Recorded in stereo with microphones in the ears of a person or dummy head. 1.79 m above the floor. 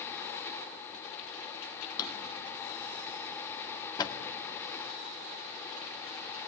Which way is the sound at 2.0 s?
20° left (ahead or behind).